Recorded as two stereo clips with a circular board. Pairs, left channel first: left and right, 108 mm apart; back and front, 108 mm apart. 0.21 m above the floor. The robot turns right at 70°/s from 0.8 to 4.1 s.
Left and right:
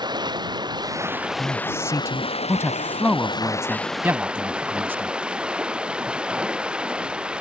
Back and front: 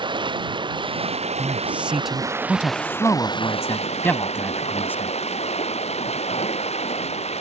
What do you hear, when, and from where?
0.0 s running water: 40° right; by 7.4 s 170° right
1.4 s a man speaking: 35° left; by 5.1 s 135° right